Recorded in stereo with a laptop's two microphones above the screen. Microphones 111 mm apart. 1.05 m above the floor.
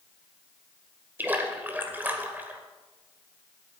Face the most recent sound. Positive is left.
turn(degrees=-15)  # may be behind; listen again after turning